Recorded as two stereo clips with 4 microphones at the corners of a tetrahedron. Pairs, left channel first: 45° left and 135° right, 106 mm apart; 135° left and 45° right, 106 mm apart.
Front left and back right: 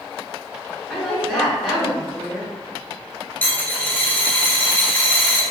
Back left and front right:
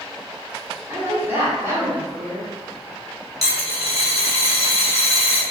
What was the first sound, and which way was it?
A woman speaking, 45° right.